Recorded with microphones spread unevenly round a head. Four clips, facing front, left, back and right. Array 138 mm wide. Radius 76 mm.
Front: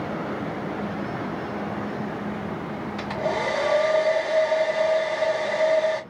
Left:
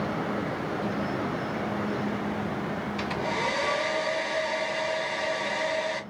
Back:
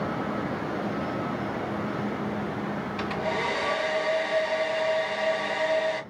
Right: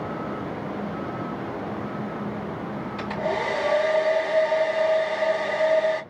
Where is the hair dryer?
25° right, 3 m.